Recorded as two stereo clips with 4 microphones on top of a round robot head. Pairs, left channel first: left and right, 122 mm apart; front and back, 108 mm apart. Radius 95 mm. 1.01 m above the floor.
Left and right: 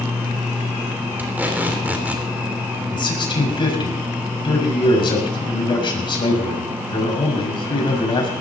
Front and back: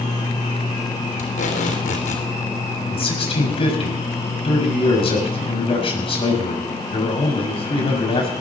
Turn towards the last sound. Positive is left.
turn(degrees=40)